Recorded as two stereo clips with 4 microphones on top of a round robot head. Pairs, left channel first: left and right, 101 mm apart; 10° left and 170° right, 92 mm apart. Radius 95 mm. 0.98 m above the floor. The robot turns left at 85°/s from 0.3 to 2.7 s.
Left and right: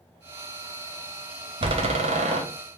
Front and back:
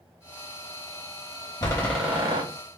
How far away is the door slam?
About 0.8 m.